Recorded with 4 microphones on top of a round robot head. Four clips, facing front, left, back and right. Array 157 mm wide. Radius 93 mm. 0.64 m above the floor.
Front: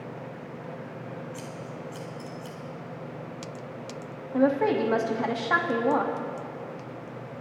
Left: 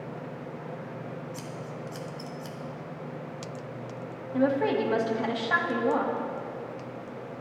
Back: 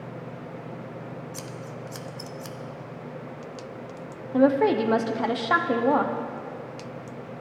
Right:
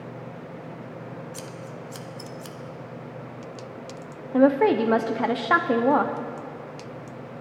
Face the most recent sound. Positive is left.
turn(degrees=-105)